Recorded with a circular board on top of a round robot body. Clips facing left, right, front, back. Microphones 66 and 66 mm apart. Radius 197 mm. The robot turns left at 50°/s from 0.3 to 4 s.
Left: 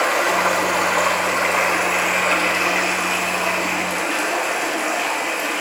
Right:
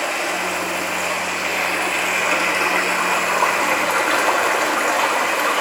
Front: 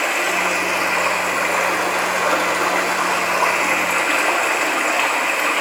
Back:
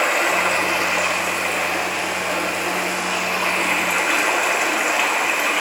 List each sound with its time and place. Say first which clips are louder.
0.0 s running water: left 5 dB, back 1 dB; 90° left, 2.5 m; by 5.6 s 95° right, 2.5 m